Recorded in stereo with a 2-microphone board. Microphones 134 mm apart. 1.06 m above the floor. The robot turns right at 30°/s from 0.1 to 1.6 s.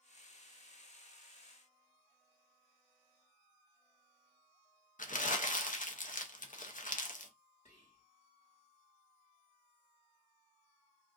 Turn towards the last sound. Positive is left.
turn(degrees=60)  # may be behind; listen again after turning